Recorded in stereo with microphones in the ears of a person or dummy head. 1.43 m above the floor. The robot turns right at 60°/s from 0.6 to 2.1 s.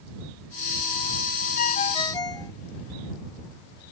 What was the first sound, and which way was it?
A ringtone, 130° left.